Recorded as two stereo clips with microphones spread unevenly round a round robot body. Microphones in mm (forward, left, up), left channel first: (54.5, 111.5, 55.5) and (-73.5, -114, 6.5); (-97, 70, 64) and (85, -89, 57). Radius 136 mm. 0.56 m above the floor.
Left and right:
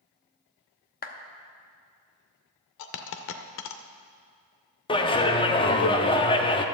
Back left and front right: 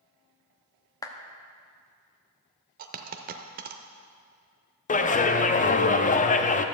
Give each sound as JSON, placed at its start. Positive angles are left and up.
{"t": 1.0, "sound": "a clap", "azimuth_deg": 80, "distance_m": 0.9}
{"t": 2.8, "sound": "a dropped coin", "azimuth_deg": 15, "distance_m": 0.5}
{"t": 4.9, "sound": "a clap", "azimuth_deg": 135, "distance_m": 0.7}